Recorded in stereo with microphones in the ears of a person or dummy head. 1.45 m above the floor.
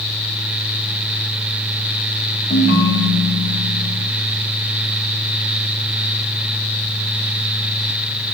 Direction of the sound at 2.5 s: 40° left (ahead or behind).